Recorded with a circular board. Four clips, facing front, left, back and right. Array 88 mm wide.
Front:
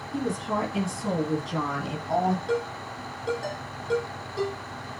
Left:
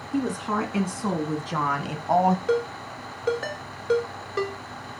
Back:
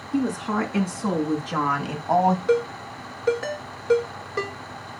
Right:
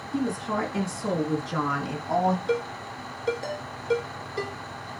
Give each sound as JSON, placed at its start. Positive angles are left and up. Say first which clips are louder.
{"t": 0.1, "sound": "a woman speaking", "louder": "left 2 dB, back 4 dB", "azimuth_deg": 135, "distance_m": 4.0}
{"t": 2.5, "sound": "a ringtone", "louder": "left 3 dB, back 6 dB", "azimuth_deg": 130, "distance_m": 4.0}